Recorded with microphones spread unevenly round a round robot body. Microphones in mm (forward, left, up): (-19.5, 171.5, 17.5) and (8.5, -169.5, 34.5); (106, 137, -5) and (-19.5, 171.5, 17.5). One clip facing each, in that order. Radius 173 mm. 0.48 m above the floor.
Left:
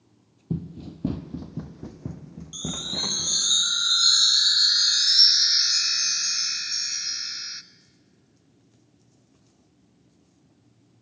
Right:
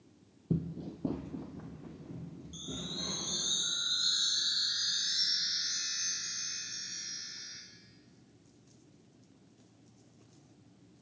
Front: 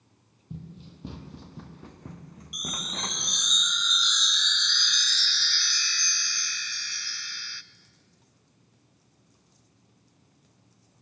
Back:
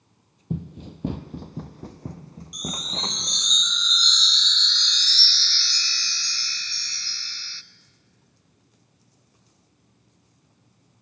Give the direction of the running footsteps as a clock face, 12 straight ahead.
6 o'clock.